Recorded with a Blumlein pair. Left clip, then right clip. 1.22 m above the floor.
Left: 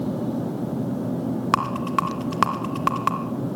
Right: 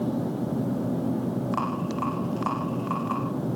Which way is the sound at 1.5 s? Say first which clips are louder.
Left 10 dB; 50° left.